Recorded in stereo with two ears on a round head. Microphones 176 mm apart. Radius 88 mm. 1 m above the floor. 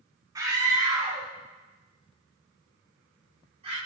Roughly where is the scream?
Right.